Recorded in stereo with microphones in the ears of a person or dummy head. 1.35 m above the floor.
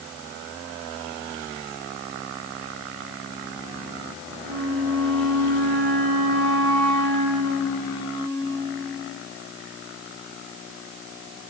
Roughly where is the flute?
Right.